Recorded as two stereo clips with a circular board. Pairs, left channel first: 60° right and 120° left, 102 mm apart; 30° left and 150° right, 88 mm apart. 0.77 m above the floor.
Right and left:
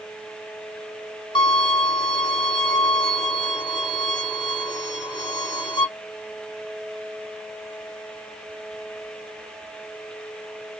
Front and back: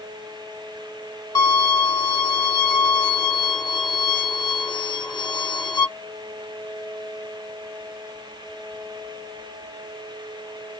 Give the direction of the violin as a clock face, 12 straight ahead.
1 o'clock.